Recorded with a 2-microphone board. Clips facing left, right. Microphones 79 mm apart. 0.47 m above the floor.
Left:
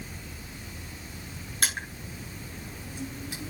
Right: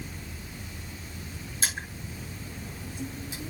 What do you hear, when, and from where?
1.6 s crushing: 55° left (ahead or behind), 7 m